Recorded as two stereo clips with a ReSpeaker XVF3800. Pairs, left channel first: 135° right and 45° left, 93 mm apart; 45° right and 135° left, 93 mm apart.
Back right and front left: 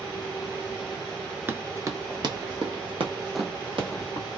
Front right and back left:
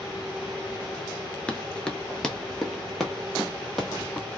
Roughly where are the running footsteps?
Ahead.